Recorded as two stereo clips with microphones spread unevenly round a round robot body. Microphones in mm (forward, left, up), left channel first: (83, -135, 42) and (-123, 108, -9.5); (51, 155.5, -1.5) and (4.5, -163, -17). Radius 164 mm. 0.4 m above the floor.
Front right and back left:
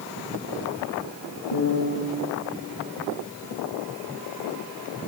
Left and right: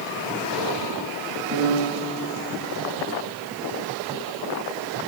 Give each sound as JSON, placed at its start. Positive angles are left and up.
{"t": 1.5, "sound": "a piano", "azimuth_deg": -45, "distance_m": 5.0}